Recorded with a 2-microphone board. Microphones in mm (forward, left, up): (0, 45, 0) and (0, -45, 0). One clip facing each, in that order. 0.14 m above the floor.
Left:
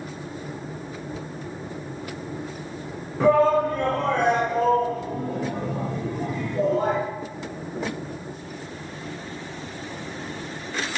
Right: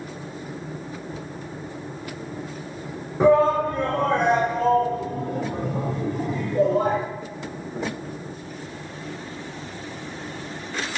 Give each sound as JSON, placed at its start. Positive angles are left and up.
{"t": 3.2, "sound": "a shout", "side_deg": -20, "distance_m": 1.1}